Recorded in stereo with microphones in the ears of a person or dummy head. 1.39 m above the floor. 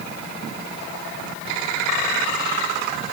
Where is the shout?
No shout in this recording.